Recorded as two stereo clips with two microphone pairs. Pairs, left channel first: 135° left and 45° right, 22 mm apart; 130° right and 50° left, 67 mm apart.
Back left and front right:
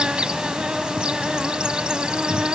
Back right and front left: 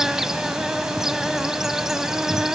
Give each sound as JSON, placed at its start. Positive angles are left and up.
{"t": 0.0, "sound": "an insect", "azimuth_deg": -30, "distance_m": 0.8}